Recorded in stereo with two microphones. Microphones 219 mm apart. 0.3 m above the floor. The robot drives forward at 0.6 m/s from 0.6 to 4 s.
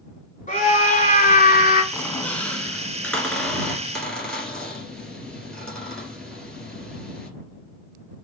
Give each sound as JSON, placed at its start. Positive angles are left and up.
{"t": 0.5, "sound": "a scream", "side_deg": 35, "distance_m": 3.0}
{"t": 1.9, "sound": "a squeak", "side_deg": 5, "distance_m": 1.0}